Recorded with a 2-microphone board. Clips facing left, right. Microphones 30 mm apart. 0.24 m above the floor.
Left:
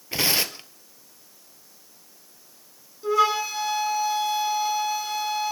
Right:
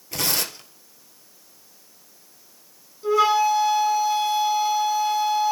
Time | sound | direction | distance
0.1 | tearing paper | 30° left (ahead or behind) | 1.6 m
3.0 | a flute | 5° left (ahead or behind) | 3.5 m